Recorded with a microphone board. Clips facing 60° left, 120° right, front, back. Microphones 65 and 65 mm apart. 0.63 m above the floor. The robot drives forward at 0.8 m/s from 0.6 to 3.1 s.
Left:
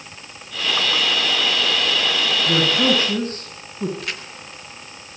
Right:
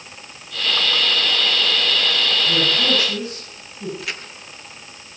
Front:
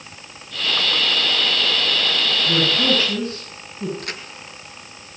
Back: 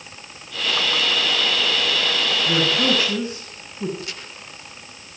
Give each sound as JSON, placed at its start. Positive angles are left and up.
{"t": 2.5, "sound": "a man speaking", "azimuth_deg": 105, "distance_m": 8.0}
{"t": 4.0, "sound": "a crack", "azimuth_deg": -35, "distance_m": 5.0}